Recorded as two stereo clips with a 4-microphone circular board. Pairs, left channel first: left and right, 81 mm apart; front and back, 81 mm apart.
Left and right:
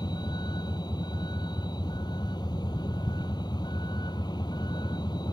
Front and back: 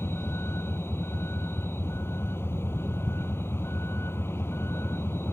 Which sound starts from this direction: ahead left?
A vehicle, at 0.0 s.